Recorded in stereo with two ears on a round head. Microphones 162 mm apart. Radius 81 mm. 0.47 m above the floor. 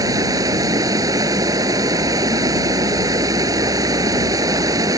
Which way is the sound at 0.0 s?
20° right (ahead or behind).